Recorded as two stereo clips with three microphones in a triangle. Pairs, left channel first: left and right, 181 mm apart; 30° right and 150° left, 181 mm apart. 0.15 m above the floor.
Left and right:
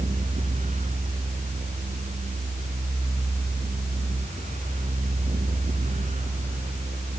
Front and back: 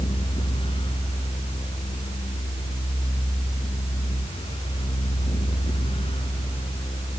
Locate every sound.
Only background noise.